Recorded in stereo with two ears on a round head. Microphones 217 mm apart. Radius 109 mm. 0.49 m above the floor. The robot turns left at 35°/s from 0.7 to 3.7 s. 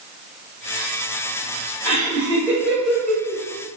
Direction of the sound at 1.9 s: 20° left (ahead or behind).